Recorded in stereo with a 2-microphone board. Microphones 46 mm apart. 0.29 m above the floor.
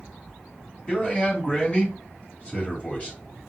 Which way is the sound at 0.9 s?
30° left (ahead or behind).